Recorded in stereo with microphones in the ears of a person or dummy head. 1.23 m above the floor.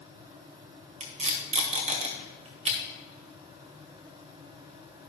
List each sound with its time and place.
1.0 s tape being pulled: 40° right (ahead or behind), 1.6 m